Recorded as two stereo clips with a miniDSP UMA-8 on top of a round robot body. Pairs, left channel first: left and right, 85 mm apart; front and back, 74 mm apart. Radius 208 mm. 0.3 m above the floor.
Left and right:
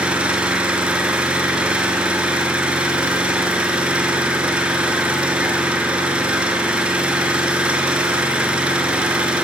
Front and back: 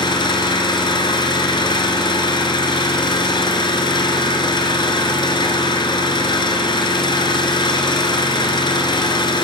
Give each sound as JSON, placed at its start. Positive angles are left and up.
{"t": 0.0, "sound": "an engine running", "azimuth_deg": -15, "distance_m": 3.5}